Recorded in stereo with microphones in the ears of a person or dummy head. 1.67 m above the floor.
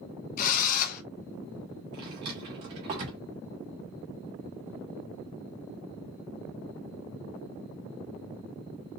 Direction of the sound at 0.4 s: 50° left (ahead or behind).